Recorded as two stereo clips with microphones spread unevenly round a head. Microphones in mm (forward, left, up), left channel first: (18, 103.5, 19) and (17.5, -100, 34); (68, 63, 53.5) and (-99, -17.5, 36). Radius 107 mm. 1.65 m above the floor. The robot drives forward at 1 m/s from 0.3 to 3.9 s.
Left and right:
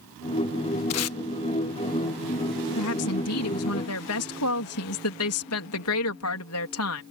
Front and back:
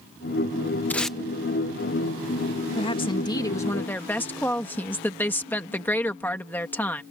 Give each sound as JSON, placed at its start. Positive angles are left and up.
{"t": 0.9, "sound": "tape being pulled", "azimuth_deg": 105}
{"t": 2.8, "sound": "a woman speaking", "azimuth_deg": 85}